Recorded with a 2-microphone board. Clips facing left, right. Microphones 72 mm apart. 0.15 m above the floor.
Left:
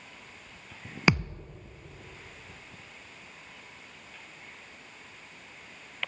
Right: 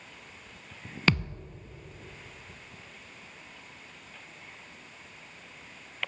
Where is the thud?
15° left (ahead or behind), 0.5 m.